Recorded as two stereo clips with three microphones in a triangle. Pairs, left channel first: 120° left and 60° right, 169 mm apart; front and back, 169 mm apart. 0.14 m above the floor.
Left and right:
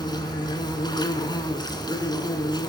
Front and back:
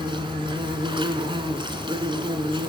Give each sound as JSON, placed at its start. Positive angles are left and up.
{"t": 0.0, "sound": "an insect", "azimuth_deg": 155, "distance_m": 2.0}